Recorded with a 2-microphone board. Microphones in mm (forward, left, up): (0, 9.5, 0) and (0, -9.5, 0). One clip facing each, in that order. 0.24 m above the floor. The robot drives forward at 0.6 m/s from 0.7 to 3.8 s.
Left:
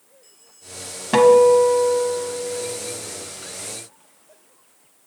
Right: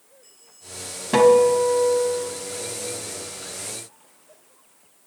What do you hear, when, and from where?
1.1 s a guitar: 20° left (ahead or behind), 0.7 m